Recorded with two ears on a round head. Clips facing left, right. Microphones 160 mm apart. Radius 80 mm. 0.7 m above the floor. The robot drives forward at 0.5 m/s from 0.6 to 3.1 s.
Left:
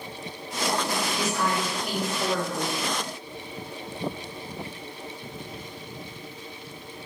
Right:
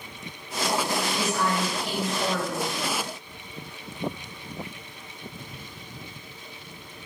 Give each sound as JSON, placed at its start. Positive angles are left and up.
{"t": 1.2, "sound": "a woman speaking", "side_deg": 20, "distance_m": 1.0}